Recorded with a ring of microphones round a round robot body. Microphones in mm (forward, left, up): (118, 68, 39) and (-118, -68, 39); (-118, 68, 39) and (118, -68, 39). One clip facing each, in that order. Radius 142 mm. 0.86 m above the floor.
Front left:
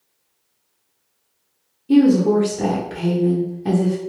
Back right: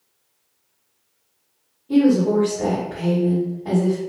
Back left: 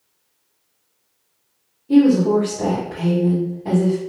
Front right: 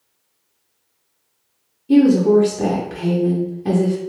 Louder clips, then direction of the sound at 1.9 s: Front left 2 dB, front right 1 dB; 15° left.